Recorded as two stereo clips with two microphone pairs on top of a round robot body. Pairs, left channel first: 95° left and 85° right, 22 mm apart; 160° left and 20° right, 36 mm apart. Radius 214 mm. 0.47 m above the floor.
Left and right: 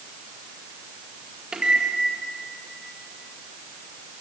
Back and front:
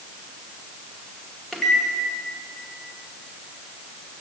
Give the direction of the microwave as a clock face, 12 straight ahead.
4 o'clock.